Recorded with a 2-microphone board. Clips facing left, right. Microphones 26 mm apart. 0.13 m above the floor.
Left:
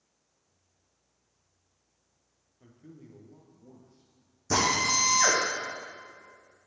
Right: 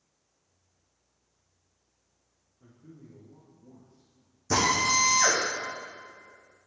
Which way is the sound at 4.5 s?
5° right (ahead or behind).